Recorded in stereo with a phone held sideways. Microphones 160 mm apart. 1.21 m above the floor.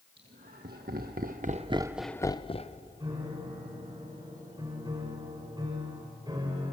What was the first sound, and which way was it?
Laughter, 80° right.